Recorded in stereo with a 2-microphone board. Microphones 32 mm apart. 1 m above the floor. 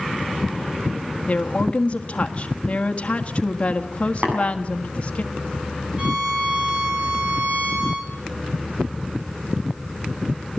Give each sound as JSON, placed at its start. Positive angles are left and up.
{"t": 1.3, "sound": "a woman speaking", "side_deg": 40, "distance_m": 1.6}
{"t": 4.2, "sound": "tapping", "side_deg": -65, "distance_m": 7.5}
{"t": 6.0, "sound": "a violin", "side_deg": -35, "distance_m": 3.5}